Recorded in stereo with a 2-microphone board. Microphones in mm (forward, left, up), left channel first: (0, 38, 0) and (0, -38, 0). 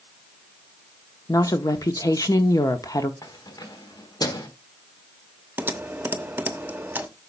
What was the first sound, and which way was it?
A woman speaking, 50° left (ahead or behind).